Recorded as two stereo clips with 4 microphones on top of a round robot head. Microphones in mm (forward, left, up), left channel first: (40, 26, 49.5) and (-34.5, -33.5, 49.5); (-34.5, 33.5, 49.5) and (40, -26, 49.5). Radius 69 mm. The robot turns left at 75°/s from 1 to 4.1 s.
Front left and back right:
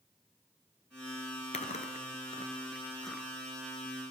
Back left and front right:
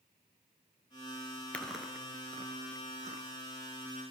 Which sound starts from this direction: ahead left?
Chewing, at 1.5 s.